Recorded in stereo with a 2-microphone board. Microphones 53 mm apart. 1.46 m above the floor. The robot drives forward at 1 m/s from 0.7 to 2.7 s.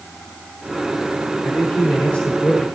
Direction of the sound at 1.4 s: 40° left (ahead or behind).